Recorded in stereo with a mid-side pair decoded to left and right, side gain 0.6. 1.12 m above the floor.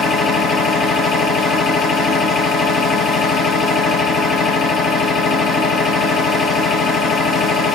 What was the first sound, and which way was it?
A machine running, 40° left.